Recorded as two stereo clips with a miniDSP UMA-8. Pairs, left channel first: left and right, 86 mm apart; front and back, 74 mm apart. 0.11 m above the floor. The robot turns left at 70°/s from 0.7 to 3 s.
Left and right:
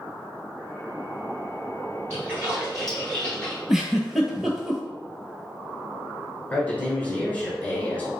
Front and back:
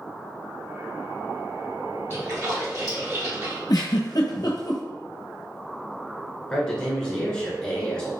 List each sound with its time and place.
2.1 s a splash: 130° right, 1.4 m; by 3.6 s 165° left, 1.4 m
3.7 s a giggle: 5° right, 0.6 m
6.5 s a man speaking: 60° left, 1.1 m